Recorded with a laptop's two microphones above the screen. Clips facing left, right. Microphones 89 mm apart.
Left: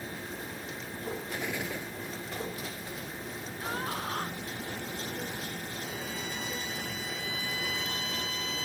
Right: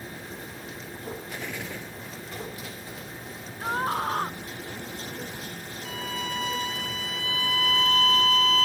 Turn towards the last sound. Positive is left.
turn(degrees=-80)